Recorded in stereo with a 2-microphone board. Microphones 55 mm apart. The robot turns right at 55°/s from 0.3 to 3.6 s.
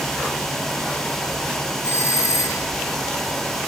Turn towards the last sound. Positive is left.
turn(degrees=145)